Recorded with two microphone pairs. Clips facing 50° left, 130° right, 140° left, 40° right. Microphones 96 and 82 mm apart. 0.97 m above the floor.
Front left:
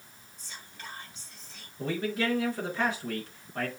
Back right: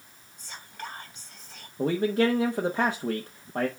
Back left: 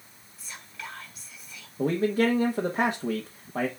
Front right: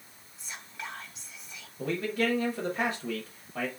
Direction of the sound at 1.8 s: 165° right.